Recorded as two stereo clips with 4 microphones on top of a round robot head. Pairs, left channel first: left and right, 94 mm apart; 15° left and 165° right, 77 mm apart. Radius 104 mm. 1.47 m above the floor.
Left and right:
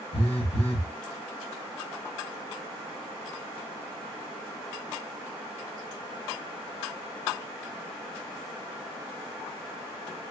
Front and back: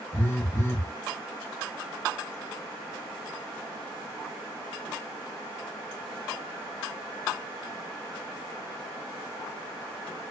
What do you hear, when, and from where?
0.1 s a phone buzzing: 75° left, 1.1 m